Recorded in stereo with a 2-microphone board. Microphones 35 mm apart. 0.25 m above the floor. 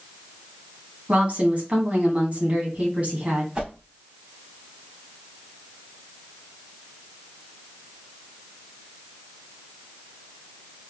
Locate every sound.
1.1 s a woman speaking: 40° right (ahead or behind), 1.5 m
3.5 s a whoosh: 25° right (ahead or behind), 1.5 m